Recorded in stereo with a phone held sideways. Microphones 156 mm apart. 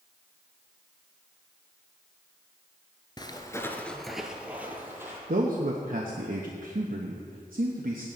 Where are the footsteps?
30° left (ahead or behind), 1.1 m; by 5.2 s 15° right (ahead or behind), 2.5 m.